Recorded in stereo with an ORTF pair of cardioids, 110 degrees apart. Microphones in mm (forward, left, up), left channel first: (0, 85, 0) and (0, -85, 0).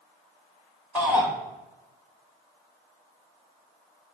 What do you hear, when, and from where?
0.9 s a shout: 10° right, 1.7 m